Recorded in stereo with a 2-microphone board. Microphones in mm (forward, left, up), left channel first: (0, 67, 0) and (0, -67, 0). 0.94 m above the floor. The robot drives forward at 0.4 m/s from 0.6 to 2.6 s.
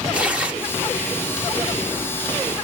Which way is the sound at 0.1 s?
10° right (ahead or behind).